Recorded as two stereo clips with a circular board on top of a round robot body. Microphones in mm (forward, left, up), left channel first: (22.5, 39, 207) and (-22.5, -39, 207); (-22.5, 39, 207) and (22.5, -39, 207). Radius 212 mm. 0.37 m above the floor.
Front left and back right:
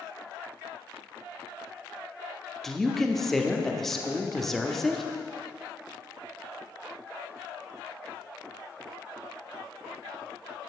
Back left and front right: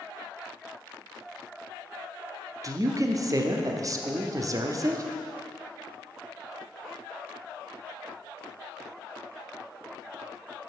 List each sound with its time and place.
2.6 s a woman speaking: 25° right, 1.1 m